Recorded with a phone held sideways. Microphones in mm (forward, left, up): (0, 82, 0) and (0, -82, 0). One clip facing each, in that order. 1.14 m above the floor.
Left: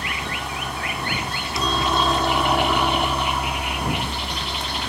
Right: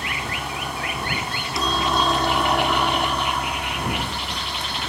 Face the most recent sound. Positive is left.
turn(degrees=15)  # may be behind; listen again after turning